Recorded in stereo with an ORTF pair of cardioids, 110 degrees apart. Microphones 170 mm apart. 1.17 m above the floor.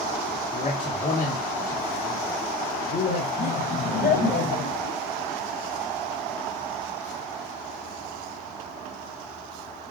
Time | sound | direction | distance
0.5 | a man speaking | 40° left | 2.0 m
3.4 | laughter | 60° left | 7 m